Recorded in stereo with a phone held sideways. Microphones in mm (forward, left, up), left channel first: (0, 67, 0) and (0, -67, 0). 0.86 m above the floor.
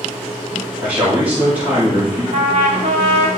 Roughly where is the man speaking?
Centre.